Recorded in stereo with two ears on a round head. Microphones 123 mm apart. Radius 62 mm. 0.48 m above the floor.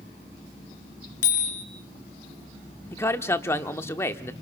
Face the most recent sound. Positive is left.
turn(degrees=20)  # may be behind; listen again after turning